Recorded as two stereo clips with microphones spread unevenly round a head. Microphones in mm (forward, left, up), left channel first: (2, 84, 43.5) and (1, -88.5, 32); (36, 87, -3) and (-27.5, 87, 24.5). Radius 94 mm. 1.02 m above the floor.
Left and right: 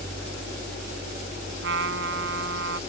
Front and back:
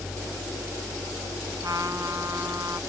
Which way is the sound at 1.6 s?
110° right.